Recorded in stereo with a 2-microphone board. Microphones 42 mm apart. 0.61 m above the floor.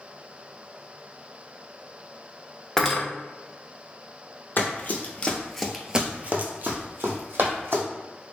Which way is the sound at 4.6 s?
50° left (ahead or behind).